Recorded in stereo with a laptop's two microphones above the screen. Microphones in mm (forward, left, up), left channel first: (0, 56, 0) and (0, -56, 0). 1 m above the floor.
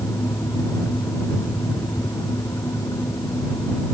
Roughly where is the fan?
Left.